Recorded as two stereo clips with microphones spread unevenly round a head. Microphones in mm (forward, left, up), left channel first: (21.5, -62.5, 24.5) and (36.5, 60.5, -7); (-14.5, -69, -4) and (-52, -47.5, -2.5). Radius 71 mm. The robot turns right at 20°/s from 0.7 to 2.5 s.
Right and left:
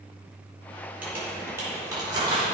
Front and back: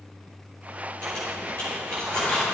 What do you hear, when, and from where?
1.0 s crumpling: 5° left, 4.5 m; by 2.5 s 35° left, 4.5 m